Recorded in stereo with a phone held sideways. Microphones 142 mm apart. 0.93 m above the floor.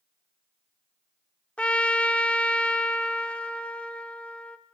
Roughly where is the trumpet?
Centre.